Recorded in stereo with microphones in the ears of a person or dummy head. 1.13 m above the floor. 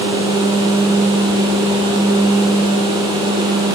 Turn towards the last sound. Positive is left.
No sound to turn to.